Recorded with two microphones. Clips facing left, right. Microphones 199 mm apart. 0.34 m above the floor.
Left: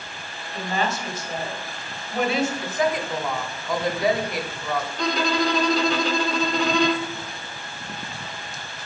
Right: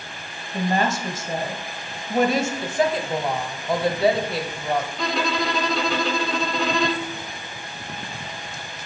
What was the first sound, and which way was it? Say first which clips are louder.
A woman speaking: right 4 dB; 45° right (ahead or behind).